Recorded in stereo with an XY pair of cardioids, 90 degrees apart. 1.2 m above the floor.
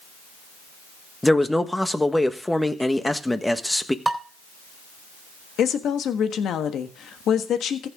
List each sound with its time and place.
1.2 s a man speaking: 10° left, 1.3 m
4.0 s dishes clattering: 20° right, 3 m
5.6 s a woman speaking: 70° left, 1.4 m